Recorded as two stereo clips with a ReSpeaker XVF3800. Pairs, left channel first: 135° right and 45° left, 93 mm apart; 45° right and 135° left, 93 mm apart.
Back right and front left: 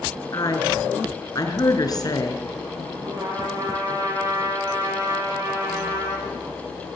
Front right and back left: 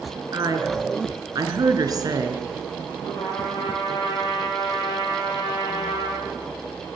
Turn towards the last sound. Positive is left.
turn(degrees=-5)